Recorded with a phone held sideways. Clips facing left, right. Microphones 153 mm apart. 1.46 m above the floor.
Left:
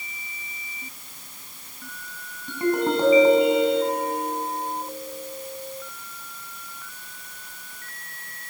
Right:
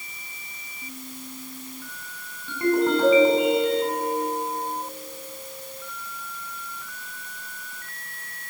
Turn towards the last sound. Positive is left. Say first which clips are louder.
# right 2 dB
turn(degrees=15)  # may be behind; listen again after turning